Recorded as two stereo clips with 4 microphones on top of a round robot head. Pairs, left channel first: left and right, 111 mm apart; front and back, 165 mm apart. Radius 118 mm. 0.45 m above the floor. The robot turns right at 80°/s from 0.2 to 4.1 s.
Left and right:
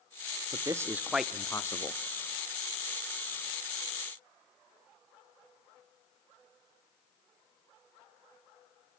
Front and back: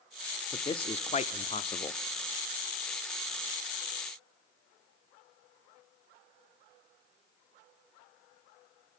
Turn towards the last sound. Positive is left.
turn(degrees=-130)